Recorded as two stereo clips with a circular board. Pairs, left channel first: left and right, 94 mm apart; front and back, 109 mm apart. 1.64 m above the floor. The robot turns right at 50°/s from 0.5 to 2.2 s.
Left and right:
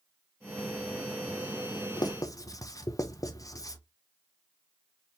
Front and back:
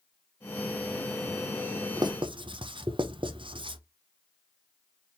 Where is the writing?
130° left, 0.6 m; by 3.8 s 140° left, 0.6 m.